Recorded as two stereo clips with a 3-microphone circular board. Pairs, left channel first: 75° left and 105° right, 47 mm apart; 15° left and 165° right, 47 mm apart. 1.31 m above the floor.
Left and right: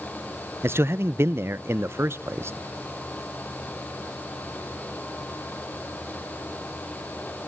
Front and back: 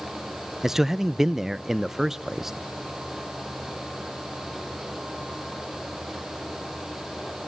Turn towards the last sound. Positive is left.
turn(degrees=-80)